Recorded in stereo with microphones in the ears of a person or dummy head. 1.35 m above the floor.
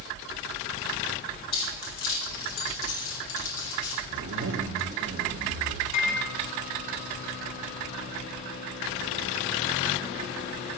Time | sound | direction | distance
1.5 | keys jangling | 85° left | 5.5 m
4.1 | a zipper | 65° right (ahead or behind) | 1.6 m
5.9 | a microwave | 70° left (ahead or behind) | 1.6 m